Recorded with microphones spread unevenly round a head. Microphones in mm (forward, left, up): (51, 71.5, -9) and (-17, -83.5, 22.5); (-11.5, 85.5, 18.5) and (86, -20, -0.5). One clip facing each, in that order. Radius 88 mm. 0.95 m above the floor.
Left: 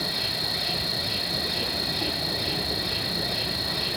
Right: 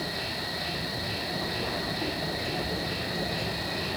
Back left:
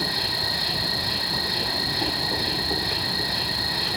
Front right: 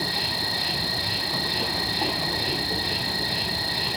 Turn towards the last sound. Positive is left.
turn(degrees=20)